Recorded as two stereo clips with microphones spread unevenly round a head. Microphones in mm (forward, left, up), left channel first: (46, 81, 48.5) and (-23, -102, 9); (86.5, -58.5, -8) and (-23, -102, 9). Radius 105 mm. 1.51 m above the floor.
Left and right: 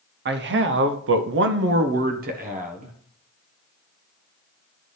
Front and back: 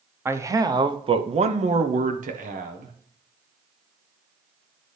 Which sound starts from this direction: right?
A man speaking, at 0.2 s.